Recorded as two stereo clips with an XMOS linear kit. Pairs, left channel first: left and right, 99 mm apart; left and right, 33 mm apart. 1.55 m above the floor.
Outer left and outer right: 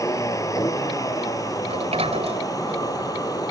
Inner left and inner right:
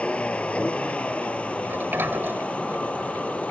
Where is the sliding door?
80° right.